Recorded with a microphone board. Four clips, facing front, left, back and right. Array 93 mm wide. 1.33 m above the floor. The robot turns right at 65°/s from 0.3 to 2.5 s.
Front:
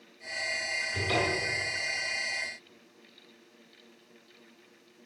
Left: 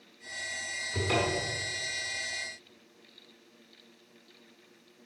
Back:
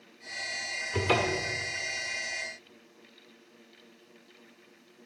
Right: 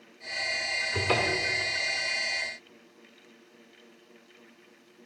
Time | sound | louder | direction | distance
0.9 | a cupboard door | right 1 dB, back 3 dB | 170° right | 1.6 m